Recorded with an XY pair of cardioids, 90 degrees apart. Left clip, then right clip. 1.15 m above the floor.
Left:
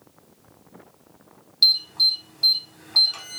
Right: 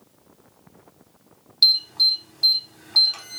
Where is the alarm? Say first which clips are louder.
Right 1 dB; 20° right, 1.8 m.